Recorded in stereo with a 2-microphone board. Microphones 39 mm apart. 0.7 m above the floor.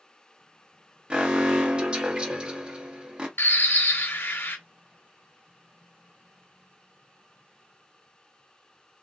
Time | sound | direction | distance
1.1 | an alarm | 25° right (ahead or behind) | 0.9 m
3.4 | a bird | 65° left (ahead or behind) | 0.7 m